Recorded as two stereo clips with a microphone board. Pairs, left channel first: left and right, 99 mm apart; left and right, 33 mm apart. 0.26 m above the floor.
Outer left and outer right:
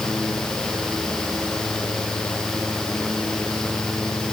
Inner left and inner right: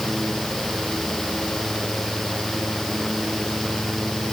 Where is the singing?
I don't hear singing.